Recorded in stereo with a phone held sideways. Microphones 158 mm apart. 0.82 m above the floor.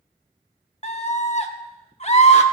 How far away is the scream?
About 1.5 m.